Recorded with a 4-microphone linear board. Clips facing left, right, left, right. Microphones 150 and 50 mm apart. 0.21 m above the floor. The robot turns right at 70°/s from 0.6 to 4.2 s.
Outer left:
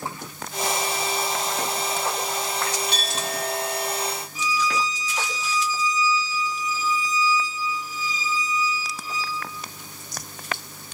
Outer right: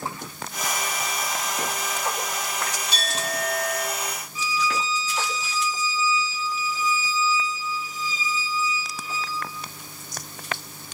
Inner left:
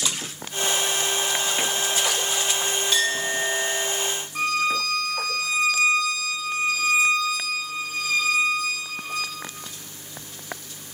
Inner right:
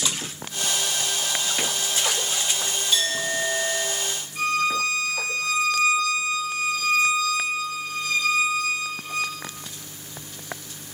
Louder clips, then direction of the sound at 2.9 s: Even, even; 105° left.